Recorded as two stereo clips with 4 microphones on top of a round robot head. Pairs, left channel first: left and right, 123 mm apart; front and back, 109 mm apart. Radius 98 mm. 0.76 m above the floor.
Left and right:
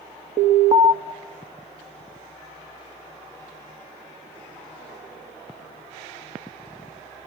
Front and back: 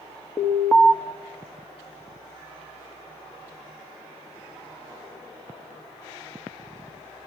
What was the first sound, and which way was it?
An alarm, 70° right.